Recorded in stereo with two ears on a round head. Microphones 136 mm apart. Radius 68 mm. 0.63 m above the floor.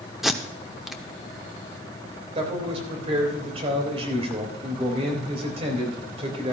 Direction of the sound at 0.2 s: Centre (ahead or behind).